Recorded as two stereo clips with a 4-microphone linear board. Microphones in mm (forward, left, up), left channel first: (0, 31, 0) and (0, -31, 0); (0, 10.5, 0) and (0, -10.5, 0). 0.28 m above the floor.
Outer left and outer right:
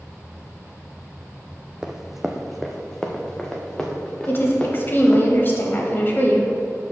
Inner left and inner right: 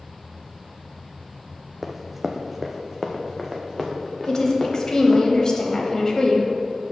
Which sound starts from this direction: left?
A woman speaking, at 4.3 s.